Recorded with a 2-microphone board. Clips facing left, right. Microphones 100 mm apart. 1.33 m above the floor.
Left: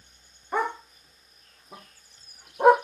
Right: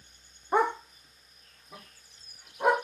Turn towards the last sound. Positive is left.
turn(degrees=55)  # may be behind; listen again after turning